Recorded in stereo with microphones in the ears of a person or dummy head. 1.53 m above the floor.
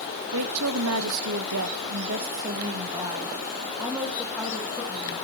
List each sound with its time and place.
0.3 s a woman speaking: 80° right, 1.7 m; by 5.2 s 5° left (ahead or behind), 3 m